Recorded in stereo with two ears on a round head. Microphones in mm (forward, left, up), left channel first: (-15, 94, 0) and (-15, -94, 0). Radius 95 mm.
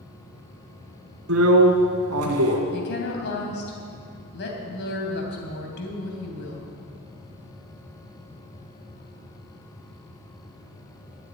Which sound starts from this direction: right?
A drill, at 1.3 s.